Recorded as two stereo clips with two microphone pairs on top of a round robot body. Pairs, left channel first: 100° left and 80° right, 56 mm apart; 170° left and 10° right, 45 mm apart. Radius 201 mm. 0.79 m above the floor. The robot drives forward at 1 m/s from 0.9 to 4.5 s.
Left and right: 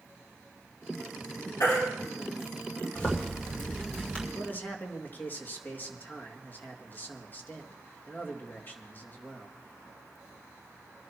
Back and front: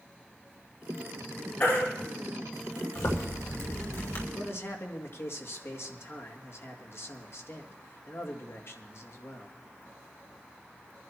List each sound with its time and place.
1.6 s a baby crying: 120° left, 7.5 m
3.0 s a zipper: 165° left, 2.5 m; by 4.2 s 170° left, 4 m
4.3 s a man speaking: 145° left, 2 m; by 9.5 s 150° left, 2.5 m